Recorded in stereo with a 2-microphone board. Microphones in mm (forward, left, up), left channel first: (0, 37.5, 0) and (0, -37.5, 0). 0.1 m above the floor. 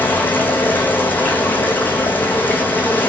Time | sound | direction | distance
0.0 | running water | 25° left (ahead or behind) | 2.5 m